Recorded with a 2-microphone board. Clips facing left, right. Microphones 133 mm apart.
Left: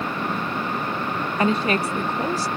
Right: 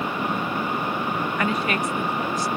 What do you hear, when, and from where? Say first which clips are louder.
1.4 s a woman speaking: left 6 dB; 25° left (ahead or behind); by 2.5 s 30° left (ahead or behind)